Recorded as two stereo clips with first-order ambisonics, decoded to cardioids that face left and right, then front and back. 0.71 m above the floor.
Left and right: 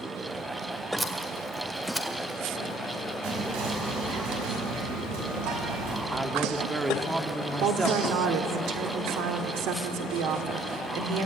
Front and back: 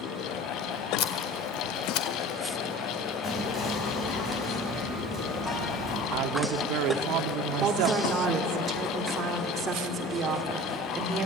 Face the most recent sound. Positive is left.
turn(degrees=-115)